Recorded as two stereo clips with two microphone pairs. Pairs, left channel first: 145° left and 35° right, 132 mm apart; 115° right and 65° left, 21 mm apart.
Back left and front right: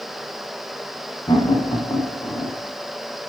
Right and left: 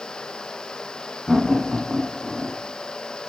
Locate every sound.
1.3 s laughter: 170° left, 1.4 m